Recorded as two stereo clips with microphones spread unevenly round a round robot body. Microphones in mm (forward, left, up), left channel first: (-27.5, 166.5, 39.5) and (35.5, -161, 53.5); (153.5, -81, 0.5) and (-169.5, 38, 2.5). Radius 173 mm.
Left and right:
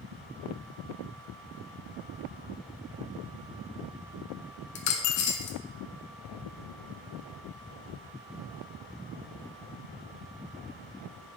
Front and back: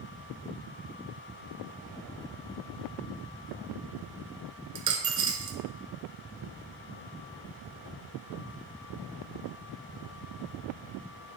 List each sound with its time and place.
4.8 s a dropped coin: 90° left, 0.5 m